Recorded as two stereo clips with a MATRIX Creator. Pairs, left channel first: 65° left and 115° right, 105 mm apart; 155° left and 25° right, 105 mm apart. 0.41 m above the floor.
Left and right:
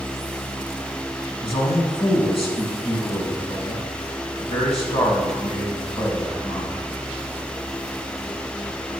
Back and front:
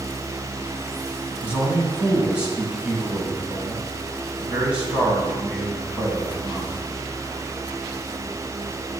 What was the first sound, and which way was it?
A man speaking, 55° left.